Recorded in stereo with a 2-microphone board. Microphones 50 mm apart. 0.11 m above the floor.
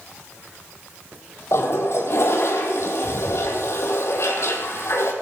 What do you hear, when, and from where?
1.5 s a toilet flushing: 65° left (ahead or behind), 2.5 m